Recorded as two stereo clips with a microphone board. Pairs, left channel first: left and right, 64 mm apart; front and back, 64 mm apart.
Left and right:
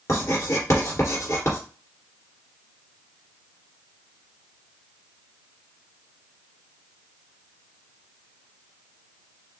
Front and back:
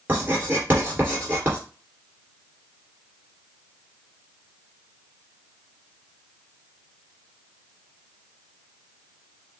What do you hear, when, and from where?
0.1 s writing: 120° left, 2.5 m